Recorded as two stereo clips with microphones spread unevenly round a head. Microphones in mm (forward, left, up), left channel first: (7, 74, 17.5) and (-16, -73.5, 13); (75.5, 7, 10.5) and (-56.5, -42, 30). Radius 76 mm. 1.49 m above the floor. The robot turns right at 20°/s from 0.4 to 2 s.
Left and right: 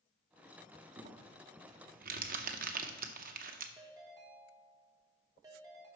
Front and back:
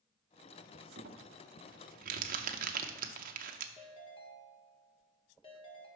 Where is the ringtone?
35° right, 1.4 m.